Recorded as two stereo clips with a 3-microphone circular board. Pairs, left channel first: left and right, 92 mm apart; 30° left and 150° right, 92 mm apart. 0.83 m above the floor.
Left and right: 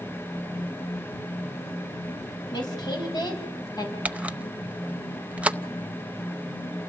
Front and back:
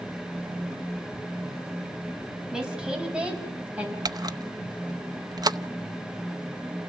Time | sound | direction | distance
2.5 | a woman speaking | 130° left | 6 m
4.0 | a camera shutter | 160° right | 0.7 m